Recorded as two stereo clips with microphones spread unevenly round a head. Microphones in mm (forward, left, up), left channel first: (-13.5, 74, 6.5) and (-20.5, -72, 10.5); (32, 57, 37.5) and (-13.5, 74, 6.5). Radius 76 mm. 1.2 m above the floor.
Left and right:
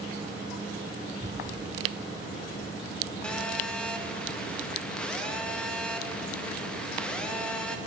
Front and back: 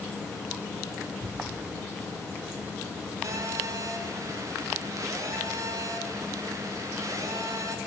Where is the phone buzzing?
170° left, 1.1 m.